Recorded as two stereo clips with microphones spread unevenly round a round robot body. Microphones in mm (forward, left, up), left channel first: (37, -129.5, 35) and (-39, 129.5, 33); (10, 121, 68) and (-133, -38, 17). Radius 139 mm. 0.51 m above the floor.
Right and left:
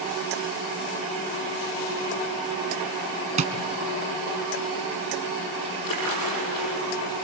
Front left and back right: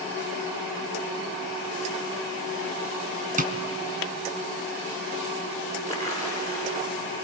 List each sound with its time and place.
3.4 s tapping: 175° left, 1.7 m
5.9 s a splash: 70° right, 7.5 m